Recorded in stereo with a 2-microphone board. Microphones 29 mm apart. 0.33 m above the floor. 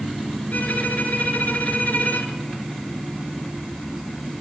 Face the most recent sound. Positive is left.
turn(degrees=70)  # may be behind; listen again after turning